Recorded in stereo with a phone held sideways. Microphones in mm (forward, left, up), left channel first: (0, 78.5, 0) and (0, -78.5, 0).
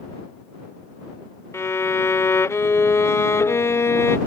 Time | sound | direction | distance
1.5 | a violin | 15° left (ahead or behind) | ?